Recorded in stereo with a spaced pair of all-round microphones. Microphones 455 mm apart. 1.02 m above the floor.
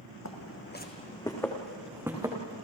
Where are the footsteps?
35° left (ahead or behind), 2 m; by 2.6 s 10° right (ahead or behind), 4 m.